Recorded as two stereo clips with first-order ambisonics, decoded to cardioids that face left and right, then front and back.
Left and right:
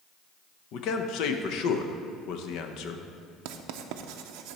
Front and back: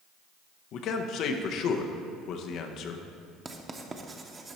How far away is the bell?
No bell in this recording.